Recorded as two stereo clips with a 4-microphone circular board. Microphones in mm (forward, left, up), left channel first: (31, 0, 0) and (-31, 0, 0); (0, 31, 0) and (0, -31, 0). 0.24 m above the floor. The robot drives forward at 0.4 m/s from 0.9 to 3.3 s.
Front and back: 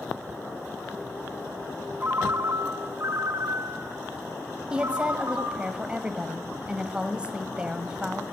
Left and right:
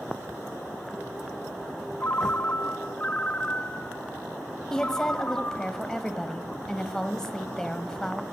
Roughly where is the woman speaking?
Behind left.